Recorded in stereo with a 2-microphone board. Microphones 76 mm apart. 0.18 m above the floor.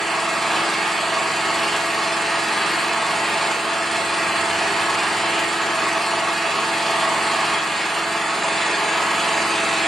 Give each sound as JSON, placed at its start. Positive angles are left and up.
{"t": 0.0, "sound": "an engine running", "side_deg": 5, "distance_m": 3.0}